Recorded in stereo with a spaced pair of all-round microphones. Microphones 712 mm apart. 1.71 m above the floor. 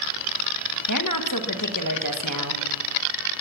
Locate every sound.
0.9 s a woman speaking: 25° left (ahead or behind), 1.7 m